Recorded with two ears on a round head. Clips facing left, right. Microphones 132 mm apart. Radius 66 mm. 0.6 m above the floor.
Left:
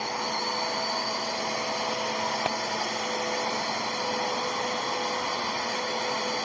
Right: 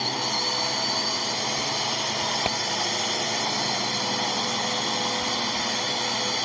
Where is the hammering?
10° right (ahead or behind).